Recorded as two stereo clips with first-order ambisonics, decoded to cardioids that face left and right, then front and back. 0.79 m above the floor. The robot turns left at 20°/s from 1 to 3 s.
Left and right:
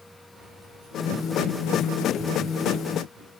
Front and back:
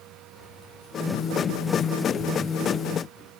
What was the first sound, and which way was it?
Keys jangling, 30° right.